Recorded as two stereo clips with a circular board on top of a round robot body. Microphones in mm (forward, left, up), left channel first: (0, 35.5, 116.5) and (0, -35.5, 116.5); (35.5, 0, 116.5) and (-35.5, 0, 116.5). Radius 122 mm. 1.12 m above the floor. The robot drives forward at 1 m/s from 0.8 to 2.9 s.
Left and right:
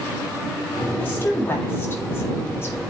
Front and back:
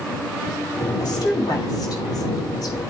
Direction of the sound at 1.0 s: 25° left.